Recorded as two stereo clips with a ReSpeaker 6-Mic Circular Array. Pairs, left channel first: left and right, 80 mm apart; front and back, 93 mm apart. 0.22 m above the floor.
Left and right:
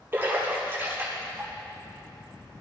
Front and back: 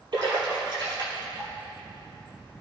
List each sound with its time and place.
0.1 s a splash: 150° right, 4 m